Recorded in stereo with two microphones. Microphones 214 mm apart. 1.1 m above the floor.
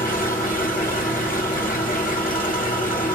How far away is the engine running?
About 1.0 m.